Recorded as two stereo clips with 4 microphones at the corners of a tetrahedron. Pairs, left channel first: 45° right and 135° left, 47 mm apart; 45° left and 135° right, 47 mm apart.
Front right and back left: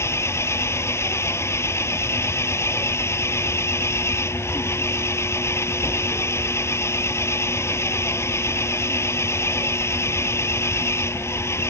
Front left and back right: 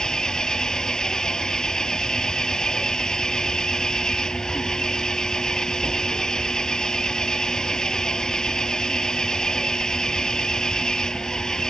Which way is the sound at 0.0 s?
30° right.